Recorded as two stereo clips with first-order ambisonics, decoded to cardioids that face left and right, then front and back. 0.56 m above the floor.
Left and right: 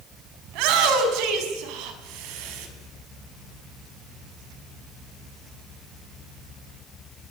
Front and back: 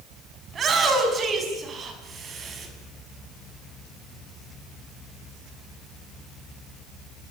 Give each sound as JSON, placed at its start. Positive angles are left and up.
{"t": 0.5, "sound": "a shout", "azimuth_deg": -115, "distance_m": 5.0}